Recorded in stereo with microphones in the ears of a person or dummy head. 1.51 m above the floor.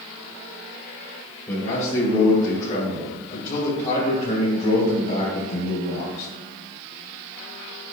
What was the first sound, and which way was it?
A man speaking, 20° left (ahead or behind).